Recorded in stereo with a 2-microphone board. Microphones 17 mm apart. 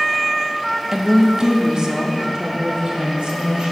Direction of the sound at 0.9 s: 30° right (ahead or behind).